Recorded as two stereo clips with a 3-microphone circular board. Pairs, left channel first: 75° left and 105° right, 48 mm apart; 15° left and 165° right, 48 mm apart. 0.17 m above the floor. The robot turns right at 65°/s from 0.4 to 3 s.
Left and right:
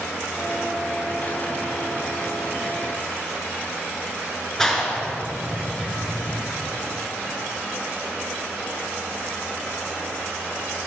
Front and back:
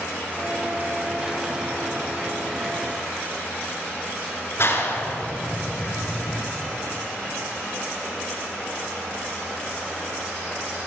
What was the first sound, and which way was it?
A clap, straight ahead.